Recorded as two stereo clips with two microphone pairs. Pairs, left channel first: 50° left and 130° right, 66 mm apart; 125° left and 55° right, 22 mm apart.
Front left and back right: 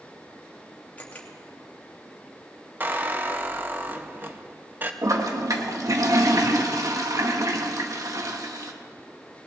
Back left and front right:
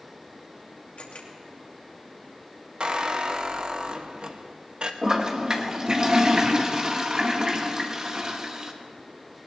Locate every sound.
1.0 s a camera shutter: 115° left, 2.5 m
2.8 s a squeak: 80° right, 1.0 m
5.0 s a toilet flushing: 110° right, 1.4 m